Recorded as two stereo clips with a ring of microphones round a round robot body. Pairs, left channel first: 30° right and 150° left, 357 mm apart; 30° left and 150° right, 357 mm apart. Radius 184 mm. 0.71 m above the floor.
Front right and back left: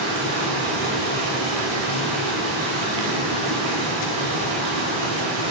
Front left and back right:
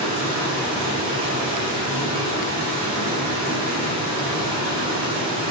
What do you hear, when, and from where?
0.0 s running water: 135° left, 1.1 m